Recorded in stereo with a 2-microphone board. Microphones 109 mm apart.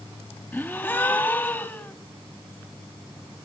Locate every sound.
0.5 s a gasp: 20° left (ahead or behind), 0.6 m